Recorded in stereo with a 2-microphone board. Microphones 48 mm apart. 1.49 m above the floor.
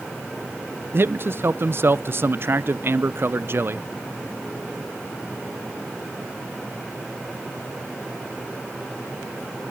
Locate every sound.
0.9 s a man speaking: 50° right (ahead or behind), 0.5 m